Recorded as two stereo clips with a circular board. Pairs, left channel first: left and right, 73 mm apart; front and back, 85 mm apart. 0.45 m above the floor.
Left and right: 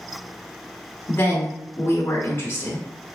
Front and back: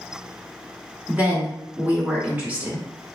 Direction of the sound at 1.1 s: 120° left.